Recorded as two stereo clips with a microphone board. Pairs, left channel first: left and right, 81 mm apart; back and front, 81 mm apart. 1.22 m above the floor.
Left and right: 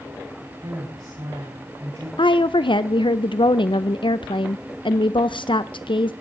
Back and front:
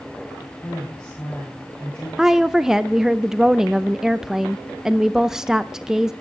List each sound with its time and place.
0.6 s a woman speaking: 110° right, 8 m
2.2 s a woman speaking: 85° left, 0.6 m